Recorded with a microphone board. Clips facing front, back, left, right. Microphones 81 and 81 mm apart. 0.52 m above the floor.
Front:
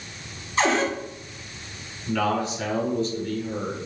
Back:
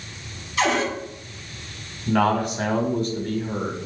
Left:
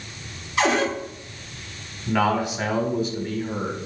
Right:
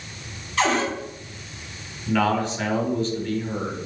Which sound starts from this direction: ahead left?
A cupboard door, at 0.6 s.